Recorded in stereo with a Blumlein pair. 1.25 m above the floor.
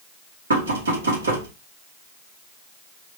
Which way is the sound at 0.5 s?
65° right.